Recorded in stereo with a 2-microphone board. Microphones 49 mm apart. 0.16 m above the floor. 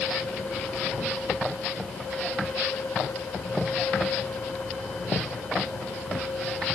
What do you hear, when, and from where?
Only background noise.